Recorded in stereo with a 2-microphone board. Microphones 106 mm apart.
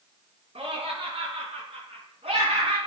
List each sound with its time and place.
0.6 s laughter: 75° right (ahead or behind), 3.5 m; by 2.8 s 70° right (ahead or behind), 3 m